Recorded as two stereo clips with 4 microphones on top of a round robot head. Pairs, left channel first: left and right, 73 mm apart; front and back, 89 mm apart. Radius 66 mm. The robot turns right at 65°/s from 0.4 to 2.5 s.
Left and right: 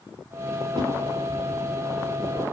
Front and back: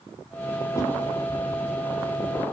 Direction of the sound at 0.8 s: 65° right.